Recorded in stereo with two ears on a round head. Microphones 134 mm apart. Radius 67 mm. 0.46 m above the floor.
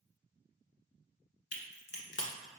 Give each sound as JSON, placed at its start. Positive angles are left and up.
{"t": 1.5, "sound": "a crack", "side_deg": 80, "distance_m": 1.0}